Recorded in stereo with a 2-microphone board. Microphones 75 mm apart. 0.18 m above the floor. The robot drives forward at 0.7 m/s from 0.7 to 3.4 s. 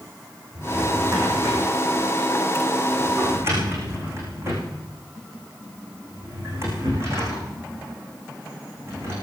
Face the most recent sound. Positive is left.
turn(degrees=-35)  # may be behind; listen again after turning